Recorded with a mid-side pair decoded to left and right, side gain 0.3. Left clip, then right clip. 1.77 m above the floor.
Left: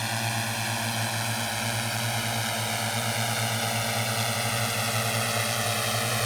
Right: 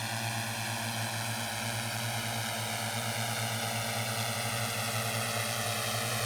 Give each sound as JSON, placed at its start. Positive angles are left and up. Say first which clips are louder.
{"t": 0.0, "sound": "a drone", "louder": "left 6 dB", "azimuth_deg": 55}